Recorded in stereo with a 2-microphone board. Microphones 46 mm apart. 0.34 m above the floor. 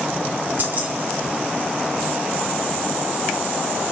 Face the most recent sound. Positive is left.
turn(degrees=-40)  # may be behind; listen again after turning